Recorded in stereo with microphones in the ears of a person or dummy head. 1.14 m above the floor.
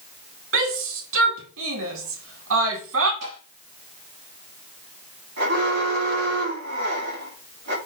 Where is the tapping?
75° right (ahead or behind), 5 m.